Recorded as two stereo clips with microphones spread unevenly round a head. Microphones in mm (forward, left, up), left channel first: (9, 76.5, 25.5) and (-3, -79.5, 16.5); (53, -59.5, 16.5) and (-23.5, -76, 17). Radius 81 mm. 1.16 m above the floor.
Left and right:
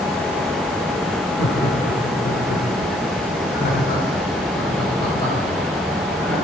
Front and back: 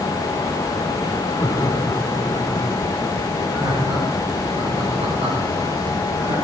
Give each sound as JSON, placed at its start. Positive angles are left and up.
{"t": 1.4, "sound": "laughter", "azimuth_deg": 70, "distance_m": 4.0}